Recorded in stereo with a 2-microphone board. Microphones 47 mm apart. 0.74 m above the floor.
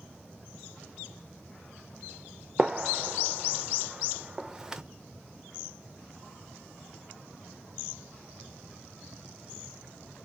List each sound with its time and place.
2.6 s a gunshot: 10° right (ahead or behind), 0.5 m